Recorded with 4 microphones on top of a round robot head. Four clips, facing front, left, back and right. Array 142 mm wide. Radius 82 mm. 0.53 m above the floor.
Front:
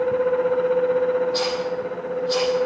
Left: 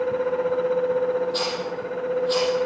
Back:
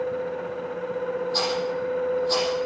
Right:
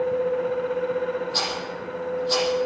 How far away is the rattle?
About 7.5 m.